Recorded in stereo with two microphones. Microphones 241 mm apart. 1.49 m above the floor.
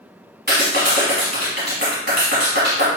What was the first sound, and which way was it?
A clap, 45° right (ahead or behind).